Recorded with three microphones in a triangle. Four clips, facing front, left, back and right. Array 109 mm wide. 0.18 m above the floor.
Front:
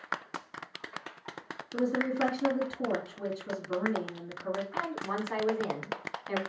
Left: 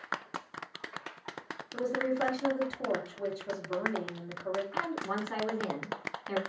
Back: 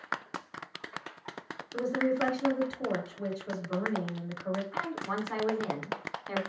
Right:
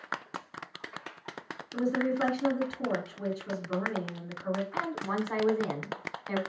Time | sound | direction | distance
1.7 | a woman speaking | 50° right | 2 m
4.7 | a woman speaking | 90° right | 1.0 m